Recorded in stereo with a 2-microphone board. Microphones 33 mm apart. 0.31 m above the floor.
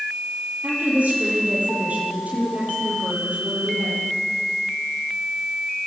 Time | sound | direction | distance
0.6 | a woman speaking | 45° right (ahead or behind) | 9.5 m